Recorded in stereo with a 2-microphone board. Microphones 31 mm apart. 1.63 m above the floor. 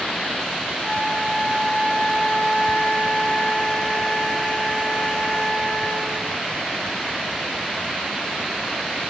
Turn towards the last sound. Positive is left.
turn(degrees=40)  # may be behind; listen again after turning